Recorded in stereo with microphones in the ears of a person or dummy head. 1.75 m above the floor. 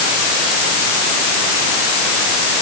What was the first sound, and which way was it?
Only background noise.